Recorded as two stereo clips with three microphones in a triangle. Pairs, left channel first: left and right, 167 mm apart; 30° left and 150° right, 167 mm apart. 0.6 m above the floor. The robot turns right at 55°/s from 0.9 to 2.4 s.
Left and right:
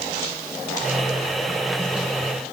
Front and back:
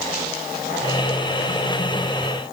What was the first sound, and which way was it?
Only background noise.